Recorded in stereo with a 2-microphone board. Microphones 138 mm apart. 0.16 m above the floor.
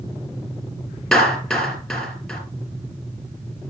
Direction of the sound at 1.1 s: Centre (ahead or behind).